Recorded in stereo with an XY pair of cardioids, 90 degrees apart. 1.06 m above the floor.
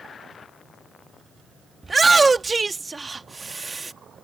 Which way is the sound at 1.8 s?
30° right.